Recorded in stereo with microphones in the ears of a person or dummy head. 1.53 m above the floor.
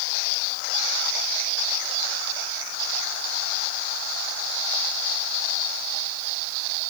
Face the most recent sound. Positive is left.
No sound to turn to.